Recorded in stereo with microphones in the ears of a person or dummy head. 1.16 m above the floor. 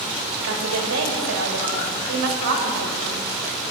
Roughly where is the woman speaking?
Right.